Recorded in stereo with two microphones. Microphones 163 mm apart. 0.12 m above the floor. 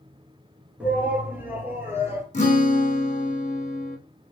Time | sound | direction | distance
0.8 | a shout | 10° right (ahead or behind) | 1.4 m
2.3 | a guitar | 50° left (ahead or behind) | 1.2 m